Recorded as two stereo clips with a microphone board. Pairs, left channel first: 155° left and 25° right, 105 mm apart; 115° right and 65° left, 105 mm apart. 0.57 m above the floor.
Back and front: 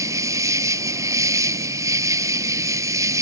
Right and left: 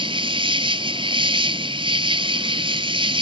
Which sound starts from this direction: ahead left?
An insect, at 0.0 s.